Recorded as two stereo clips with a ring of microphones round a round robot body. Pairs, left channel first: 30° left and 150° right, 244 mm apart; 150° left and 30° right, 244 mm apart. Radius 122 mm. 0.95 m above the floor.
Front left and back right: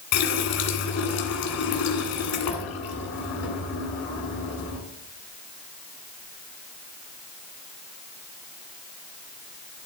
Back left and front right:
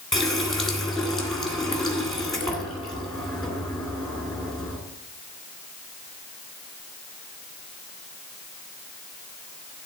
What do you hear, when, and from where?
0.1 s a running tap: 60° left, 2 m